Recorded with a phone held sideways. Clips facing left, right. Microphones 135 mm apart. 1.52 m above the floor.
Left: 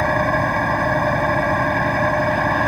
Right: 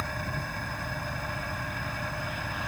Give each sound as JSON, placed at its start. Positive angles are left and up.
{"t": 0.0, "sound": "an engine running", "side_deg": 75}